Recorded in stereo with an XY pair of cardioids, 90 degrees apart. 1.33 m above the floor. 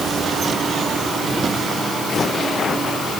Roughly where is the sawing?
I don't hear sawing.